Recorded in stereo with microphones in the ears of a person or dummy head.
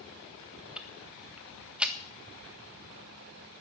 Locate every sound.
0.8 s ticking: 5° right (ahead or behind), 1.1 m